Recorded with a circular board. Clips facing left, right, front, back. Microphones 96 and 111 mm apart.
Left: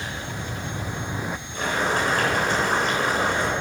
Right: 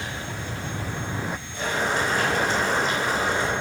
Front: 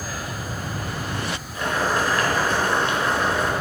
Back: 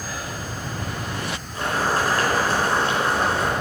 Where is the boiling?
125° left, 4 m.